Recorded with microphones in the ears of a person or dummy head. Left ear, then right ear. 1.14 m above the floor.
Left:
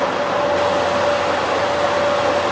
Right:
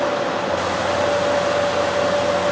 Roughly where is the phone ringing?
No phone ringing in this recording.